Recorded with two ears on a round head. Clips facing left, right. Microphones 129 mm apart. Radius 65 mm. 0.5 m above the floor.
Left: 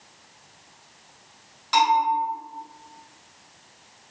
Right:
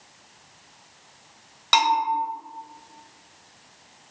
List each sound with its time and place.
1.7 s a bell: 70° right (ahead or behind), 1.8 m